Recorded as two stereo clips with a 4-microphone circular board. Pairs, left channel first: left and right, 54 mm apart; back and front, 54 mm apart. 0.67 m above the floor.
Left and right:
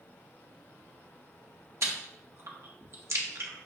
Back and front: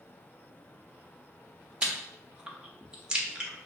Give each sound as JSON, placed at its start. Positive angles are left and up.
{"t": 1.8, "sound": "chewing", "azimuth_deg": -70, "distance_m": 0.8}